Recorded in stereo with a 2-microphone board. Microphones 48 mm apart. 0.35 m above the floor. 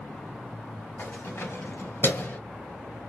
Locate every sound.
1.0 s keys jangling: 45° left (ahead or behind), 2 m; by 2.4 s 40° left (ahead or behind), 1.2 m